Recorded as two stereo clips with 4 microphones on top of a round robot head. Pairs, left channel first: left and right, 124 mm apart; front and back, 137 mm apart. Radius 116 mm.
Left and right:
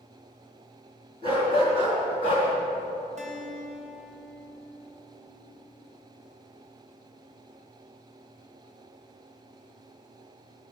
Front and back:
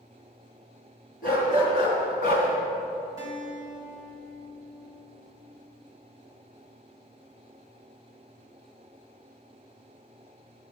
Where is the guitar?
115° right, 2.5 m.